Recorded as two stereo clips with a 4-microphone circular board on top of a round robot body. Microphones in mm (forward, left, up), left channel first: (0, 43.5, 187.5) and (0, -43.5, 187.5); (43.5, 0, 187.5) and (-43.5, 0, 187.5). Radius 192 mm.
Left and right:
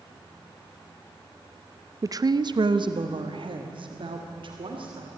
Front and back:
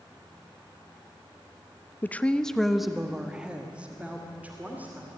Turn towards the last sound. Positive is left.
turn(degrees=-110)